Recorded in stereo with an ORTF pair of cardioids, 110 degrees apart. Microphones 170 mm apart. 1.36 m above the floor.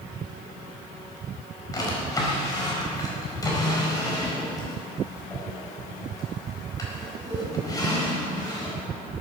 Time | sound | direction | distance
1.7 | a drawer | 20° left | 4.5 m